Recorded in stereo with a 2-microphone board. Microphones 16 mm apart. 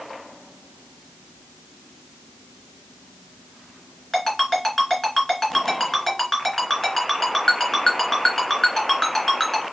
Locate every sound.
4.1 s a ringtone: 20° left (ahead or behind), 2.5 m